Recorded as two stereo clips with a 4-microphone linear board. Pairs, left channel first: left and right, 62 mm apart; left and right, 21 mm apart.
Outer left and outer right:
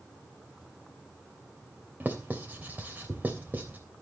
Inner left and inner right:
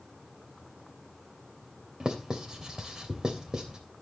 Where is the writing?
30° right (ahead or behind), 3 m.